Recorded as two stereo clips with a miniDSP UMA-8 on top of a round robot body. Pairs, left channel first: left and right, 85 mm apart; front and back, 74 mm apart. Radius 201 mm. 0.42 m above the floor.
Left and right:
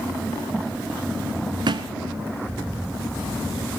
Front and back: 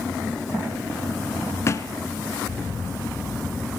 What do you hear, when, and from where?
1.7 s a thud: 55° right, 1.2 m